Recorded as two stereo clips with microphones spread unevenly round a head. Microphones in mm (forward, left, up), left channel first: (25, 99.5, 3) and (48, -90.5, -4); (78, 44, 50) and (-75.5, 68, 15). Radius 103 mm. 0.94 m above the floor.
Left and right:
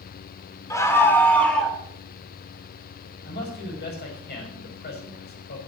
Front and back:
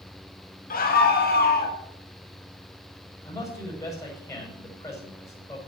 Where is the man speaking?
65° left, 6 m.